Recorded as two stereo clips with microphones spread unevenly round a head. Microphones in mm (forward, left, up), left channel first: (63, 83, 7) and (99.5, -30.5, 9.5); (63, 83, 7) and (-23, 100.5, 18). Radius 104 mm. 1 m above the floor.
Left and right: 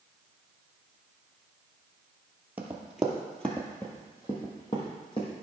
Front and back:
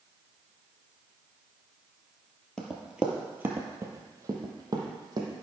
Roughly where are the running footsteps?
Right.